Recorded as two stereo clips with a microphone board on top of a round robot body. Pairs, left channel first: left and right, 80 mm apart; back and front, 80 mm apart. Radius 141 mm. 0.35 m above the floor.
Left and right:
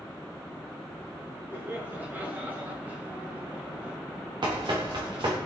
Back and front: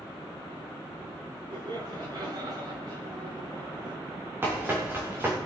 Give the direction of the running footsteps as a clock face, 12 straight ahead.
2 o'clock.